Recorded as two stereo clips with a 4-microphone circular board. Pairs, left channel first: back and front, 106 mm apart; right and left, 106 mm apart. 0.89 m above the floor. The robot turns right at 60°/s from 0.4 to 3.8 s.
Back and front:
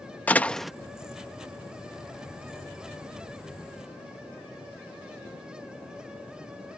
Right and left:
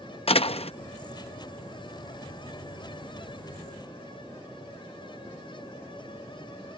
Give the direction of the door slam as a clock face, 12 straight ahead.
4 o'clock.